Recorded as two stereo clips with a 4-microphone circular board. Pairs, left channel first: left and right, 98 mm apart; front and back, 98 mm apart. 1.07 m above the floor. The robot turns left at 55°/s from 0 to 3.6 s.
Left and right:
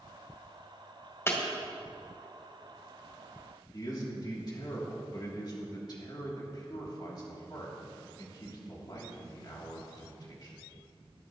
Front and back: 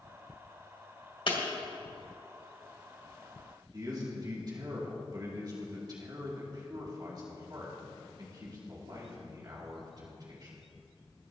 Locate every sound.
1.3 s breaking glass: 30° left, 2.5 m; by 1.4 s 20° left, 2.5 m
3.7 s a man speaking: 135° left, 2.5 m